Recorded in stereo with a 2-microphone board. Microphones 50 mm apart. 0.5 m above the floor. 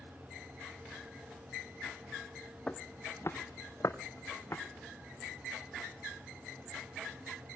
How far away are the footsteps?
About 1.2 m.